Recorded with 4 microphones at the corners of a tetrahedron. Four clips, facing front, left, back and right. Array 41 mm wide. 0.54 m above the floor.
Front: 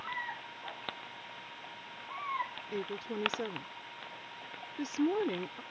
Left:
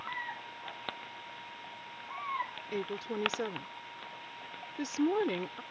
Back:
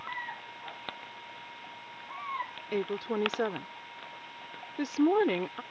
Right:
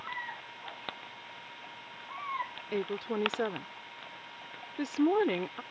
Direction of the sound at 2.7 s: 150° right.